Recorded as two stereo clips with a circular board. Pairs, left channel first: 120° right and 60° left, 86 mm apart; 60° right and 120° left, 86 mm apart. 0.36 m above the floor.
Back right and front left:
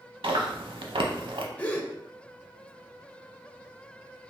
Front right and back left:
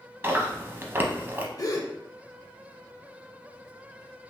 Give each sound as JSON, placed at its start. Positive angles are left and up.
{"t": 0.2, "sound": "chewing", "azimuth_deg": 55, "distance_m": 0.6}
{"t": 1.6, "sound": "a gasp", "azimuth_deg": -50, "distance_m": 0.5}